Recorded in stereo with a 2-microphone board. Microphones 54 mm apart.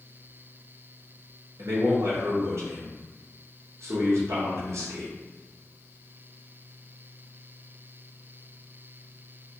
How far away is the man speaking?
About 0.9 m.